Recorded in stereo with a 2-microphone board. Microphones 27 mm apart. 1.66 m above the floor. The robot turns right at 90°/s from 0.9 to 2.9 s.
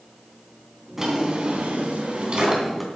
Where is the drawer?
170° right, 3 m; by 2.9 s straight ahead, 3 m.